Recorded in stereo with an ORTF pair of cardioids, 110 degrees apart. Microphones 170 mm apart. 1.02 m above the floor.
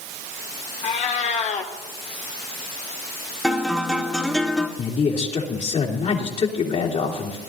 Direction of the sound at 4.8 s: 45° left.